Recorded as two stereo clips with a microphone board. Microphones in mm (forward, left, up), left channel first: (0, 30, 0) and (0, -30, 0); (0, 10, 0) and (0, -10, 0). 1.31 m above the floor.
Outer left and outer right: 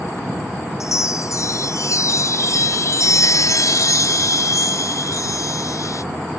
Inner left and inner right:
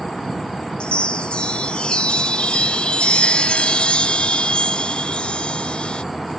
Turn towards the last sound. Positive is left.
turn(degrees=65)  # may be behind; listen again after turning